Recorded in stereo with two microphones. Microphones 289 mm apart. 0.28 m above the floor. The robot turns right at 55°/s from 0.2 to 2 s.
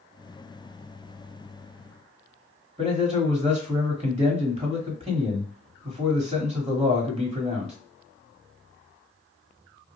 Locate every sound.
2.8 s a man speaking: 25° right (ahead or behind), 1.3 m